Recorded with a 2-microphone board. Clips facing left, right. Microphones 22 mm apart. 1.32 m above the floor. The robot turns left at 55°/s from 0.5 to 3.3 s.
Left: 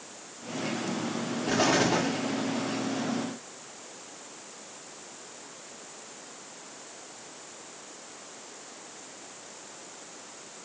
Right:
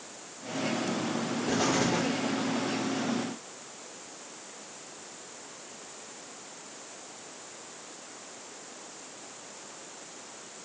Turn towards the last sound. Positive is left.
turn(degrees=40)